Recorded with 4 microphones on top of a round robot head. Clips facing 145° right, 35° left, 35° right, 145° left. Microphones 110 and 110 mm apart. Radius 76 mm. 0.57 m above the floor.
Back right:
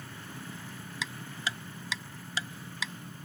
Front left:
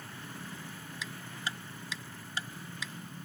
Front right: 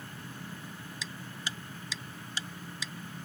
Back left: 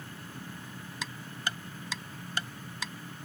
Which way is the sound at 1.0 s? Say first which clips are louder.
Back right 3 dB, back left 5 dB; 170° right.